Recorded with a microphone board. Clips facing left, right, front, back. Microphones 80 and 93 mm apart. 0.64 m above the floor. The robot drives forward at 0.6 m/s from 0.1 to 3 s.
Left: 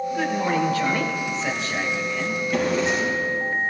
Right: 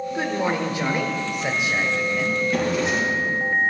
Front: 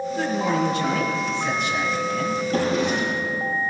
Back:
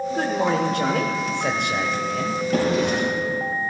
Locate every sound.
0.1 s a man speaking: 155° right, 1.8 m; by 2.4 s 165° right, 3 m
2.5 s a drawer: 175° right, 6 m